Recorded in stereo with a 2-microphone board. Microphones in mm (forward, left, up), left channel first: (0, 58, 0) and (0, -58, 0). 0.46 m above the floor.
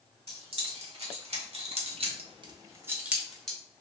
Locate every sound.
0.3 s keys jangling: 55° right (ahead or behind), 1.6 m; by 3.6 s 5° left (ahead or behind), 0.9 m